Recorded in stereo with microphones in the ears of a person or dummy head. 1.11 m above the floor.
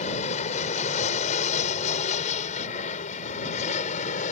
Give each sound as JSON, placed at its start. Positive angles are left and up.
{"t": 0.0, "sound": "an aircraft", "side_deg": 45}